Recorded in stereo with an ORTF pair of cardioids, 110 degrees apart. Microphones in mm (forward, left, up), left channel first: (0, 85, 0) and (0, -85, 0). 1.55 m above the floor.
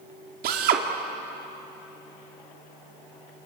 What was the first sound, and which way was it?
A drill, 65° right.